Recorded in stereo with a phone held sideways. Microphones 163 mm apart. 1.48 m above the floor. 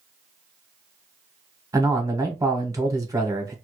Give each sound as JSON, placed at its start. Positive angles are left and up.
{"t": 1.7, "sound": "a man speaking", "side_deg": -20, "distance_m": 0.9}